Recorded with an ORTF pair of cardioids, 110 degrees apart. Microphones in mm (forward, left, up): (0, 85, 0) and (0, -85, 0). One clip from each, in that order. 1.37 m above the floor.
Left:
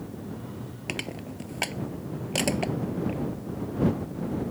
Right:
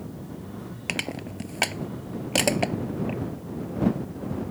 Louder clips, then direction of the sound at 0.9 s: Right 4 dB; 30° right.